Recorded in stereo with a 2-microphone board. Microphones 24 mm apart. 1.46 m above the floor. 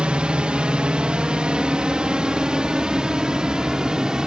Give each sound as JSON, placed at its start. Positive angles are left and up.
{"t": 0.0, "sound": "a drone", "side_deg": -60}